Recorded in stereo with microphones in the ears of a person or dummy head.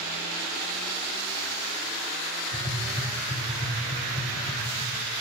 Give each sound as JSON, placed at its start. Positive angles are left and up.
{"t": 2.5, "sound": "tapping", "side_deg": 25, "distance_m": 2.0}